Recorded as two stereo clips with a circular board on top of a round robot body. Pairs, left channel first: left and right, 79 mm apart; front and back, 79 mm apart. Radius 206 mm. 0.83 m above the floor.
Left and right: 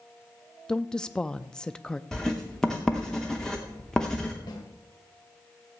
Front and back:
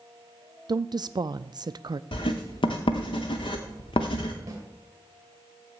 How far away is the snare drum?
About 2 m.